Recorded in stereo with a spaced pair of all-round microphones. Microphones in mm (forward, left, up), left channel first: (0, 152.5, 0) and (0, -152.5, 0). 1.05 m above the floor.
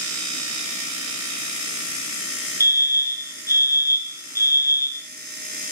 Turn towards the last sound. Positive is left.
turn(degrees=10)  # may be behind; listen again after turning